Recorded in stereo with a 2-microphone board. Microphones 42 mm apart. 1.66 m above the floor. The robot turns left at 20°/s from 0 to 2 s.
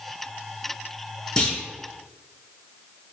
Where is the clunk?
15° left (ahead or behind), 4 m; by 1.6 s 10° left (ahead or behind), 4 m.